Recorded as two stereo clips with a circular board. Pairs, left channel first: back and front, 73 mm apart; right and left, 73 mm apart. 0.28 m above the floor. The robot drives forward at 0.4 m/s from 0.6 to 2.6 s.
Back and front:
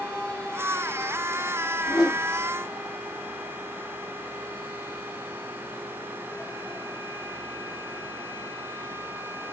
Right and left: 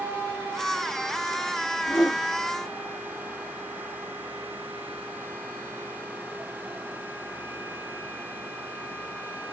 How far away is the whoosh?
About 4 m.